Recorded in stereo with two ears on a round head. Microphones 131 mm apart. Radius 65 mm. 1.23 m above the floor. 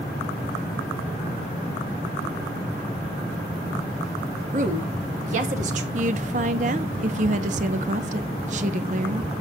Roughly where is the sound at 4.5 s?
Right.